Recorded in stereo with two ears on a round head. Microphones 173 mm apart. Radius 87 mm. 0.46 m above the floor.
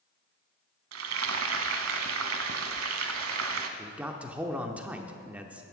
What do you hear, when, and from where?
0.9 s frying: 85° right, 1.0 m
3.8 s a man speaking: 5° right (ahead or behind), 0.7 m